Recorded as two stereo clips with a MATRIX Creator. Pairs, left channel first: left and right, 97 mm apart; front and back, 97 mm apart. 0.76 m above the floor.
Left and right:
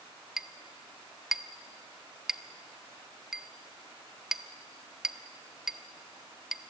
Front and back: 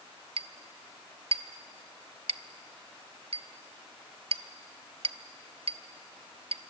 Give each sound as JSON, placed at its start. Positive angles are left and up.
{"t": 0.4, "sound": "a clink", "azimuth_deg": -175, "distance_m": 0.7}